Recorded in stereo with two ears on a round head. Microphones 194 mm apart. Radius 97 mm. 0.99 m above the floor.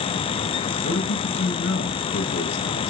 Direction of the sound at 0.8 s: 50° left (ahead or behind).